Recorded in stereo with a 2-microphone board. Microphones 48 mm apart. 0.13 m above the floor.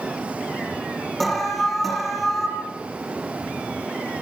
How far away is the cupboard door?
I don't hear a cupboard door.